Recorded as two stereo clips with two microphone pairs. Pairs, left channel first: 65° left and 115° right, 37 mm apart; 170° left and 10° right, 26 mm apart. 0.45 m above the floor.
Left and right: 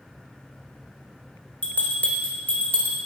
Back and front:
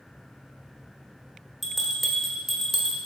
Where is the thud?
No thud in this recording.